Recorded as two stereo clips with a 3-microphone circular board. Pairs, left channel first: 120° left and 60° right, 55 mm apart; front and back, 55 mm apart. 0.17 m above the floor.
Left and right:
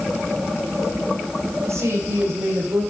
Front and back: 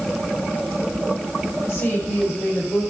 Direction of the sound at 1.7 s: 40° right.